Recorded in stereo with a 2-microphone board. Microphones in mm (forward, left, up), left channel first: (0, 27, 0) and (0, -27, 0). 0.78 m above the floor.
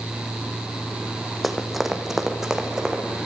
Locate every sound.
1.4 s running footsteps: centre (ahead or behind), 2.5 m; by 3.0 s 15° right (ahead or behind), 3.5 m